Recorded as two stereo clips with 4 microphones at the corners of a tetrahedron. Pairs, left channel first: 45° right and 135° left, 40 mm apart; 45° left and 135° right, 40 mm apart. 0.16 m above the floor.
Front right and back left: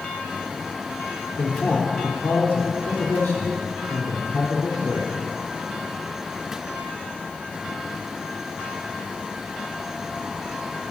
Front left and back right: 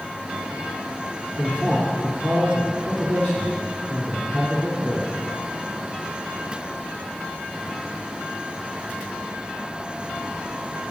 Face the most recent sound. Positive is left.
turn(degrees=5)